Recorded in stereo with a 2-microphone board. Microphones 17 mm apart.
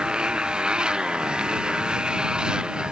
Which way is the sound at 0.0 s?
70° right (ahead or behind).